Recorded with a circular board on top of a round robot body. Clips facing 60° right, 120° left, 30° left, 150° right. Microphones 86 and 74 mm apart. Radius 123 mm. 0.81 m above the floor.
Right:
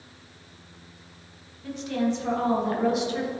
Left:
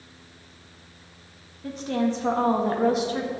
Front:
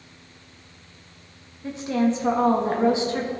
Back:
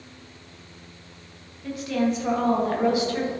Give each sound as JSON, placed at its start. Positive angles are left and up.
{"t": 1.6, "sound": "a woman speaking", "azimuth_deg": 85, "distance_m": 1.7}